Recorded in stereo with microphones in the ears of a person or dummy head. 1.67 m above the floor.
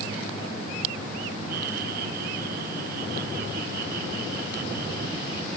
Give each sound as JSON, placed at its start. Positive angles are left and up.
{"t": 1.5, "sound": "laughter", "side_deg": -60}